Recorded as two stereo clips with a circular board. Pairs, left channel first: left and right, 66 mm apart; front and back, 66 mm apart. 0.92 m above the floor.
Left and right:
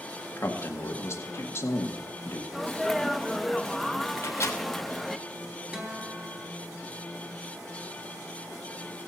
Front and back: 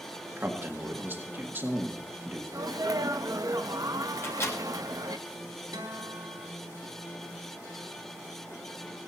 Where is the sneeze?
Straight behind, 0.8 m.